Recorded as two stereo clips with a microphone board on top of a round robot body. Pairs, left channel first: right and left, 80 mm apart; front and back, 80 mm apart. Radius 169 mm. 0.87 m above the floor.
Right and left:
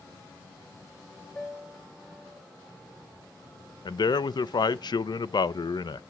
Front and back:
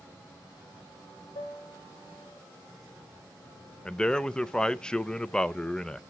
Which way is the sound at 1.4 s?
15° right.